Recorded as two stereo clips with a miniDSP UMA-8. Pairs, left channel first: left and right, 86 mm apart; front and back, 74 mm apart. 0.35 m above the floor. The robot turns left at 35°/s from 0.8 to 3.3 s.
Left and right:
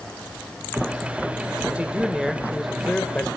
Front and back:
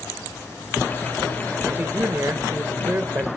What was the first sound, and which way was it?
A man speaking, 150° right.